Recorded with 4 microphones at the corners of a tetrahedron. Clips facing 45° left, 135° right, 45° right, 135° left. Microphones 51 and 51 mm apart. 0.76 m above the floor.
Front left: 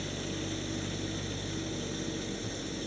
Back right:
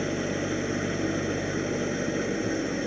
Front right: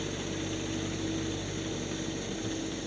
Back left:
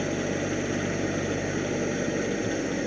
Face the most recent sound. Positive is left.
turn(degrees=175)